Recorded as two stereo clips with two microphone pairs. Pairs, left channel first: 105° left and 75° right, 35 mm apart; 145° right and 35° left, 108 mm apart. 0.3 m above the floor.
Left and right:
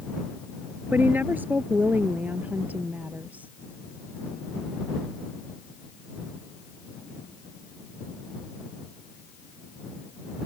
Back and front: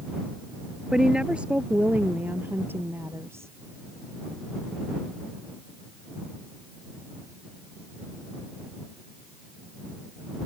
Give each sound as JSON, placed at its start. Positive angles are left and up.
{"t": 0.9, "sound": "a woman speaking", "azimuth_deg": -50}